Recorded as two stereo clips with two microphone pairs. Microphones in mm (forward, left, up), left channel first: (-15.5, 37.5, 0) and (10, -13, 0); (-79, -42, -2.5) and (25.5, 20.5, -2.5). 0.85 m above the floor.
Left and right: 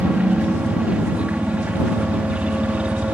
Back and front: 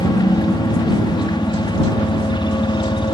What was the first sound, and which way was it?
A helicopter, 115° right.